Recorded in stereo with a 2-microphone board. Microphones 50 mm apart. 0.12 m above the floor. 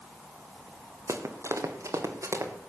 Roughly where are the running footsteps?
Right.